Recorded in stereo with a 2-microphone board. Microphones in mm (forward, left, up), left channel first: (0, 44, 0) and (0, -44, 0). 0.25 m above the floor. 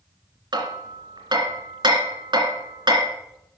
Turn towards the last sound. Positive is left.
turn(degrees=-55)  # may be behind; listen again after turning